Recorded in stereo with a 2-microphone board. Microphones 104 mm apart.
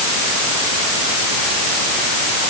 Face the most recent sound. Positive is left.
No sound to turn to.